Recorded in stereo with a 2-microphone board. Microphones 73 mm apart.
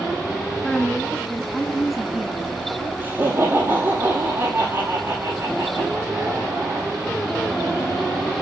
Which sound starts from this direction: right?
Laughter, at 3.0 s.